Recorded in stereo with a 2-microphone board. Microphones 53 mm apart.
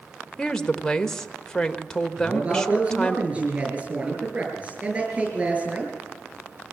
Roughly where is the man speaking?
Right.